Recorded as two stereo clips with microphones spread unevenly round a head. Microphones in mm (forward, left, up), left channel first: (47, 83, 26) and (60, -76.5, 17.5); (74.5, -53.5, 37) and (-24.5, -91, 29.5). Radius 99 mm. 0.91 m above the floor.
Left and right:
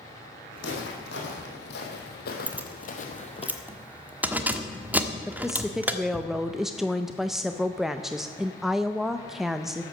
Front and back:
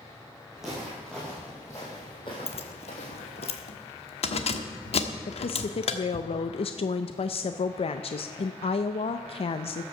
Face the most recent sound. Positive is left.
turn(degrees=0)